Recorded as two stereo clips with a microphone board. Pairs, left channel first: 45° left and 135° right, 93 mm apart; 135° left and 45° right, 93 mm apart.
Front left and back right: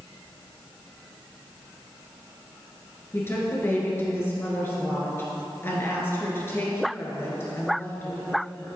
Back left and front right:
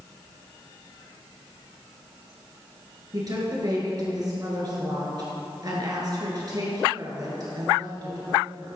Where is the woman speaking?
15° right, 2 m.